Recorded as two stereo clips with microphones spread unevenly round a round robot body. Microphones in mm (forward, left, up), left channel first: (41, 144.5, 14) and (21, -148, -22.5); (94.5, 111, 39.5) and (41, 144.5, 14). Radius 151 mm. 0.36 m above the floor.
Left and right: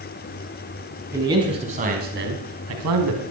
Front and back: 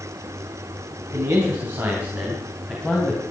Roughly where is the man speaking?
Behind.